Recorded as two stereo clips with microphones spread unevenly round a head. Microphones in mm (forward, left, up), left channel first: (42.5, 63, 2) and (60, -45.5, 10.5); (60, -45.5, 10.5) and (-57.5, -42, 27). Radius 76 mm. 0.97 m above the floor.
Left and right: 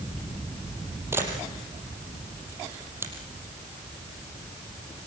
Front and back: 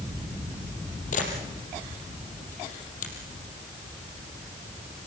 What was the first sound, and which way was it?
A camera shutter, 15° right.